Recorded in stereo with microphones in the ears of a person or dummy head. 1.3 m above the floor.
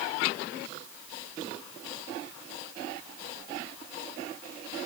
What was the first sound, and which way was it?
Only background noise.